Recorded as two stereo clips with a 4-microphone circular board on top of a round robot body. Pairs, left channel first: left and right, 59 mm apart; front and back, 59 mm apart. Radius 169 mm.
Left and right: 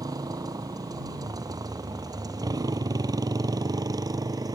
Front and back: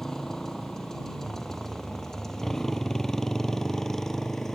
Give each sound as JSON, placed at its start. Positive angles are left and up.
{"t": 0.0, "sound": "a motorcycle", "azimuth_deg": -85}